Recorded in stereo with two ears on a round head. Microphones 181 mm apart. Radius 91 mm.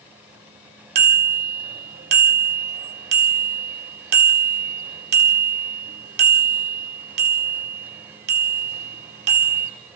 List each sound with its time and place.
0.9 s a bicycle bell: 55° right (ahead or behind), 2 m